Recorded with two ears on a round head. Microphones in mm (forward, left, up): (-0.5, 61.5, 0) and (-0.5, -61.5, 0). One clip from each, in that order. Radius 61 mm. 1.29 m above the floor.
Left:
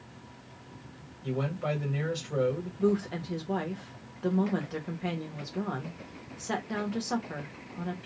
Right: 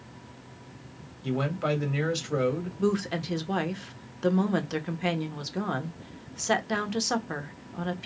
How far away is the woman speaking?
About 0.9 m.